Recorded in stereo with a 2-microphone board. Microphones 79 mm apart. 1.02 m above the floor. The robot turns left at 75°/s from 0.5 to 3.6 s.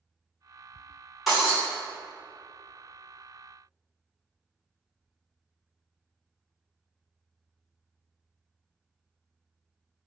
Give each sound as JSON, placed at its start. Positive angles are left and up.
{"t": 1.3, "sound": "breaking glass", "side_deg": 0, "distance_m": 1.4}